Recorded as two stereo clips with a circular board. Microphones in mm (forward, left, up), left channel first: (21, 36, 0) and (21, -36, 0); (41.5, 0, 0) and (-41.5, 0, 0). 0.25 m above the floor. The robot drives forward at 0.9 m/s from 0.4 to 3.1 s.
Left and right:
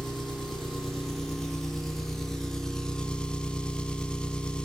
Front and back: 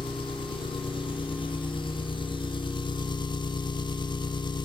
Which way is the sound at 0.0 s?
5° left.